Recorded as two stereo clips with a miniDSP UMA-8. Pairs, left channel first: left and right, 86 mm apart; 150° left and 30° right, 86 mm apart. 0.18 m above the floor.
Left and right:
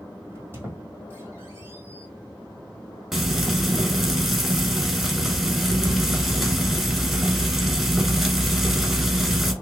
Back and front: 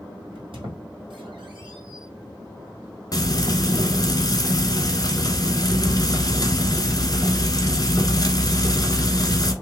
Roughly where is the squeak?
Ahead right.